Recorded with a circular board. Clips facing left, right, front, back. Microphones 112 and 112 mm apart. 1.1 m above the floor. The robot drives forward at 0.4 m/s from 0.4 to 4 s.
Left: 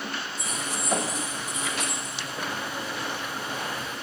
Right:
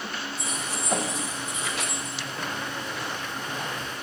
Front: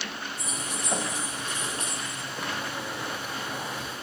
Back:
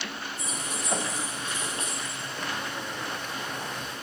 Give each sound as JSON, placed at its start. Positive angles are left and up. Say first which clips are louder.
{"t": 0.4, "sound": "keys jangling", "louder": "even, even", "azimuth_deg": -25, "distance_m": 8.5}